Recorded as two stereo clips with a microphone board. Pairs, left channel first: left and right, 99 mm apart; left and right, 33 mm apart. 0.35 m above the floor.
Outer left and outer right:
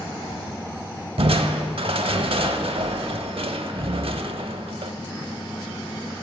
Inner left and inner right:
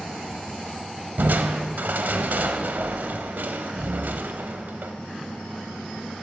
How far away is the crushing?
About 0.5 m.